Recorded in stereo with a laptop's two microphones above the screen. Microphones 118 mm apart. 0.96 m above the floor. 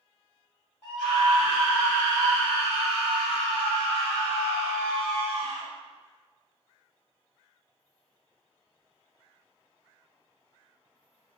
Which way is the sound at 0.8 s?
10° left (ahead or behind).